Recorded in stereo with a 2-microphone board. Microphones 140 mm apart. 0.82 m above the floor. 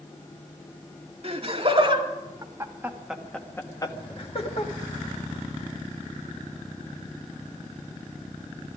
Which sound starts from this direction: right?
Laughter, at 1.2 s.